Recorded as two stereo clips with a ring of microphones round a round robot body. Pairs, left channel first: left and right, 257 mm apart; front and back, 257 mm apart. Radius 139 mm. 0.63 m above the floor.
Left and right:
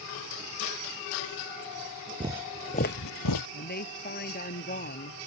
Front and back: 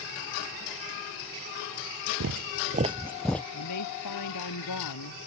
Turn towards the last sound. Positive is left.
turn(degrees=35)